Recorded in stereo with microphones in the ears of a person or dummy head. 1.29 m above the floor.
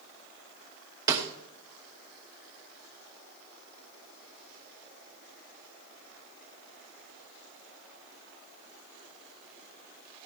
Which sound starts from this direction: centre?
A snare drum, at 1.1 s.